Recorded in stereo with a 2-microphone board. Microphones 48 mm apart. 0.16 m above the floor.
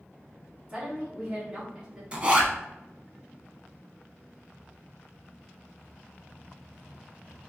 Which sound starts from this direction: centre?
A woman speaking, at 0.7 s.